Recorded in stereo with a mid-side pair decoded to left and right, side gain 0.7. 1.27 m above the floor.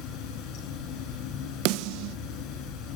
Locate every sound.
0.0 s running water: 65° left, 9 m
1.6 s a snare drum: 70° right, 0.9 m